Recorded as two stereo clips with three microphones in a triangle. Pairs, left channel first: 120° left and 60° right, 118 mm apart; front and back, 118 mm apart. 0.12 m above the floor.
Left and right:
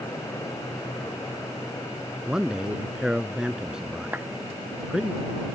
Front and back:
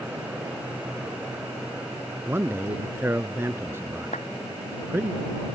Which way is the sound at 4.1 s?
15° left.